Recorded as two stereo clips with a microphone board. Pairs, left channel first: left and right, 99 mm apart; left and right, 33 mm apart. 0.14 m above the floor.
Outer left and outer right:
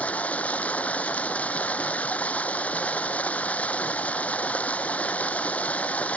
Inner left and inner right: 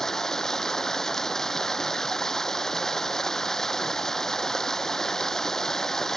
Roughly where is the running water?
Centre.